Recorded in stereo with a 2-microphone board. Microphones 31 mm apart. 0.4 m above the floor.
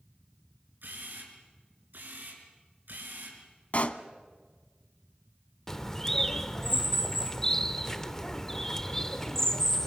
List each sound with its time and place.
0.8 s a camera shutter: 75° right (ahead or behind), 6 m
3.7 s a pop: 45° left (ahead or behind), 1.1 m
5.7 s a bird: 15° left (ahead or behind), 1.1 m